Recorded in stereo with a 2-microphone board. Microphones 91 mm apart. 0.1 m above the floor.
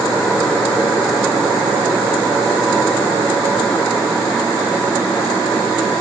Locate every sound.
Only background noise.